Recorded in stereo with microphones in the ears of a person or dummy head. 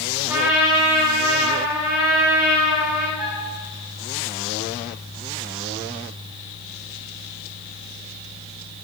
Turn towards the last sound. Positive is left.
turn(degrees=-15)  # may be behind; listen again after turning